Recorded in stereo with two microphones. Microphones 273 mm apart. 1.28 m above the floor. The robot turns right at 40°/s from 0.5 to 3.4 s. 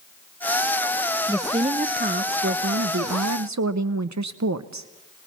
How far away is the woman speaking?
About 0.6 m.